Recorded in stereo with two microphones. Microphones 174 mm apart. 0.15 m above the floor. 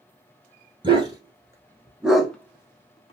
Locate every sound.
0.8 s a dog barking: 25° right (ahead or behind), 1.2 m; by 3.1 s 35° left (ahead or behind), 0.7 m